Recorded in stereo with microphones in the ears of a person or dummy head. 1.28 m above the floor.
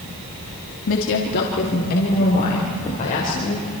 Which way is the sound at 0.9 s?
70° left (ahead or behind).